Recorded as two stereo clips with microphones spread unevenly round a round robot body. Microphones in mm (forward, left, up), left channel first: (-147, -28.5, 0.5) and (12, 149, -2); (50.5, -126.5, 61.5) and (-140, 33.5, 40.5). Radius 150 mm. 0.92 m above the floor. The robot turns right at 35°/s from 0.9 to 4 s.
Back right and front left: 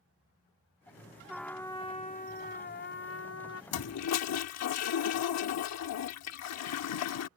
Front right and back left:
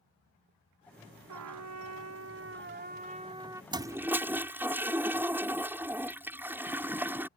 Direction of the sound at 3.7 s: 145° right.